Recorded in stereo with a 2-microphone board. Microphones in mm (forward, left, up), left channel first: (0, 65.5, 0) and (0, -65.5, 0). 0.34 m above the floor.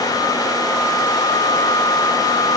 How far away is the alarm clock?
No alarm clock in this recording.